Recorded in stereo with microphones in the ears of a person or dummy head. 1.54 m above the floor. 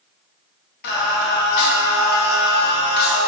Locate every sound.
0.8 s singing: 55° left (ahead or behind), 0.6 m